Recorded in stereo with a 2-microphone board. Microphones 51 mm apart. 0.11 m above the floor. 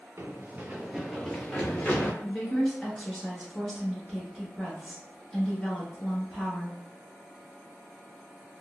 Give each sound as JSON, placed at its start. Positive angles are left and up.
{"t": 0.2, "sound": "running footsteps", "side_deg": -55, "distance_m": 0.7}
{"t": 2.2, "sound": "a woman speaking", "side_deg": 10, "distance_m": 1.1}